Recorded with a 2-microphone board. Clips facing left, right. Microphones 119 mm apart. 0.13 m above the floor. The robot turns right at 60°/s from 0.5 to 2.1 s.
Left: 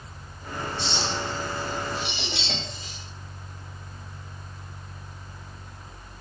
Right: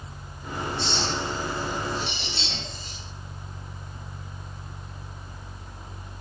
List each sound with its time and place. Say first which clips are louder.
0.8 s a clink: even; 5° left (ahead or behind), 8.5 m; by 2.9 s 80° left, 8.5 m